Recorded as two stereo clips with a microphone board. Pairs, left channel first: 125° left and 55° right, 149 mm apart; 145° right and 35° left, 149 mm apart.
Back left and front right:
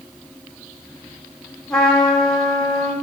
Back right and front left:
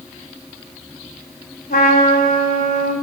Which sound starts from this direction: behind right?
A trumpet, at 1.7 s.